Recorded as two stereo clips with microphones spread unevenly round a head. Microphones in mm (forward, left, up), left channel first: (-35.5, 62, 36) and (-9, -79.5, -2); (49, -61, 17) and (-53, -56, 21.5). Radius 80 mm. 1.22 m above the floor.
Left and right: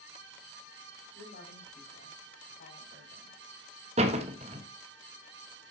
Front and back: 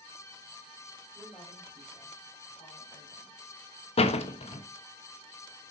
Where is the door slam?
25° right, 1.3 m.